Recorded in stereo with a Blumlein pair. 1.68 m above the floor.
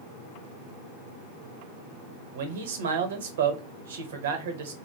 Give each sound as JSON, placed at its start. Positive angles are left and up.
{"t": 2.4, "sound": "a man speaking", "azimuth_deg": -60, "distance_m": 0.9}